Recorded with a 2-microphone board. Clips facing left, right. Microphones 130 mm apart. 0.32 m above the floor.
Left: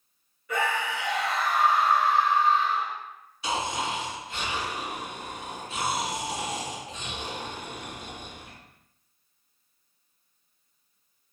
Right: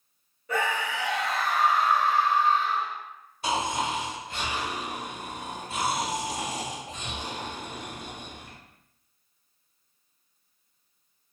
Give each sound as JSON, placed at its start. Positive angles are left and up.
{"t": 0.5, "sound": "a scream", "side_deg": -40, "distance_m": 1.2}
{"t": 3.4, "sound": "snoring", "side_deg": -50, "distance_m": 1.3}